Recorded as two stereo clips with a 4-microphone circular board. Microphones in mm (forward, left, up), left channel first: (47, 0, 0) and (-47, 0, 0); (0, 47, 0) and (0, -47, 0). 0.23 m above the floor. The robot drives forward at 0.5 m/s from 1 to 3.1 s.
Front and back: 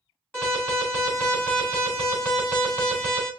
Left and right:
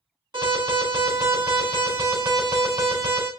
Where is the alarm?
70° right, 3.5 m; by 3.3 s 90° right, 3.5 m.